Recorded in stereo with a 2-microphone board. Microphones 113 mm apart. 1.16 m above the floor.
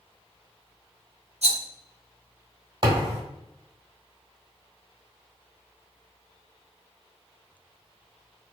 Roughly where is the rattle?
Right.